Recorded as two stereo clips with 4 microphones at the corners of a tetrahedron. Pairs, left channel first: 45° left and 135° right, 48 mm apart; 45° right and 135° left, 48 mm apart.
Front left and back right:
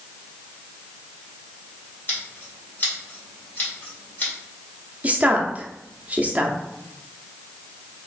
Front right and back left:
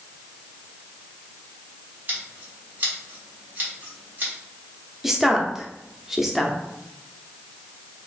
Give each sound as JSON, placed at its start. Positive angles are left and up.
{"t": 2.1, "sound": "scissors", "azimuth_deg": 85, "distance_m": 2.0}
{"t": 5.0, "sound": "a woman speaking", "azimuth_deg": -150, "distance_m": 0.7}